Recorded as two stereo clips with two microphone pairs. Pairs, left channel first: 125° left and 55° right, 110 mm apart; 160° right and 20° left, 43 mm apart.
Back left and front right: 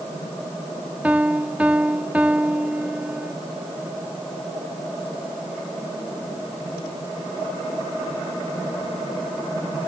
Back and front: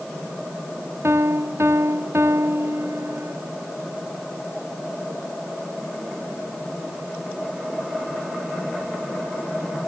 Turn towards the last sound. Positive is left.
turn(degrees=25)